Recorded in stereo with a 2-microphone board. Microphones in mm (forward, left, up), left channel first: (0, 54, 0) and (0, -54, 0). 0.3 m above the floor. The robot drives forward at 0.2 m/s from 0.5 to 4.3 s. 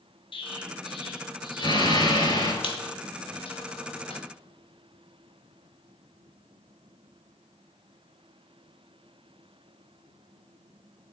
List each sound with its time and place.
0.3 s an explosion: 55° left (ahead or behind), 0.9 m; by 2.5 s 40° left (ahead or behind), 1.2 m
2.6 s a squeak: 55° left (ahead or behind), 0.8 m